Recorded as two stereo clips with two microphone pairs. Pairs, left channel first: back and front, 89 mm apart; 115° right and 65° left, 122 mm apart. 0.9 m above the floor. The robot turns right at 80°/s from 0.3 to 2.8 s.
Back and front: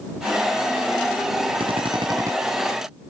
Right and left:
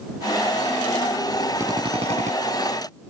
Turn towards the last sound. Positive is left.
turn(degrees=90)